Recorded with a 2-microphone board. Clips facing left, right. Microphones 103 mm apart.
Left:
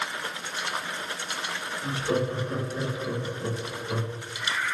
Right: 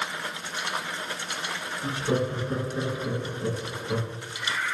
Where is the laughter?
25° right (ahead or behind), 1.4 m.